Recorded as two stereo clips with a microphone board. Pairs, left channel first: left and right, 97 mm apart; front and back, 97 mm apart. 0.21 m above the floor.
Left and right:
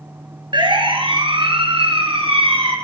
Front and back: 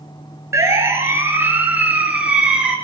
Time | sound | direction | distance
0.5 | a siren | 120° right | 5 m